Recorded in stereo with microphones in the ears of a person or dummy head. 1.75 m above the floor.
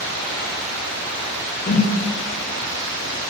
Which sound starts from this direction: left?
A whoosh, at 1.7 s.